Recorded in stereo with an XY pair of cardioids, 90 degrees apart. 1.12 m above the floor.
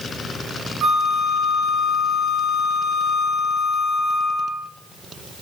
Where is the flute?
45° right, 1.9 m.